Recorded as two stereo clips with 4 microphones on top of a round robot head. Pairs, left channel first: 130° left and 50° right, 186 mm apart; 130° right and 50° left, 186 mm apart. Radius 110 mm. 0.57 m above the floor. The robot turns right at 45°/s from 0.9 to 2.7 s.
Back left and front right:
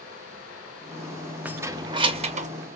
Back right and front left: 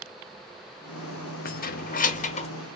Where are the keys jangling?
130° right, 0.6 m; by 2.5 s 85° right, 0.6 m.